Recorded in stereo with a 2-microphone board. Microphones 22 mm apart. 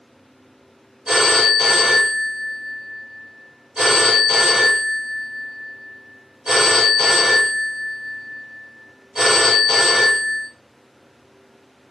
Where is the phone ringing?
40° right (ahead or behind), 1.4 m.